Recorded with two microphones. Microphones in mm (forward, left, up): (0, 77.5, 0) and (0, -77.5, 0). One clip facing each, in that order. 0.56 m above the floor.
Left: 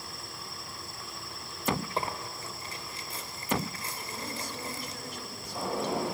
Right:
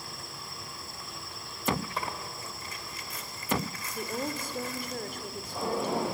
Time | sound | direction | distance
2.0 | tearing paper | 35° left (ahead or behind) | 1.8 m
4.0 | a woman speaking | 55° right (ahead or behind) | 2.0 m